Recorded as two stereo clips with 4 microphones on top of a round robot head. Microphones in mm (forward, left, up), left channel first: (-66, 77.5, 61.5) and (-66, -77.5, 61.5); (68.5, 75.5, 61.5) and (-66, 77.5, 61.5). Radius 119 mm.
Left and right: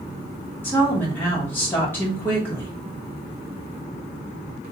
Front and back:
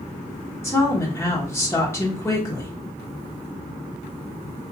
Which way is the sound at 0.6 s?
35° left.